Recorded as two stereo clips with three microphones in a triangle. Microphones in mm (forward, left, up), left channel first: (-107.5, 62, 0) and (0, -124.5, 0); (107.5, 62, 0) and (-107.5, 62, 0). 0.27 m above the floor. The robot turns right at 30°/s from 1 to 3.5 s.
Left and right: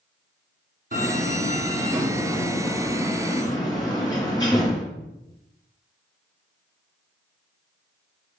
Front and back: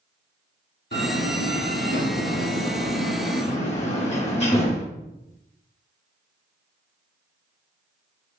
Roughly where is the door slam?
Ahead.